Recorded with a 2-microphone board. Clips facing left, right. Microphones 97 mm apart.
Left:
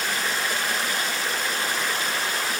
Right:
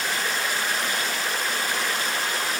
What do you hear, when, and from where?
Only background noise.